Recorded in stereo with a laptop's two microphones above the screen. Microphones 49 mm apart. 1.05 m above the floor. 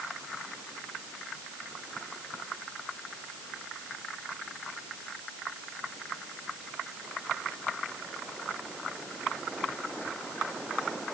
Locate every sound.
Only background noise.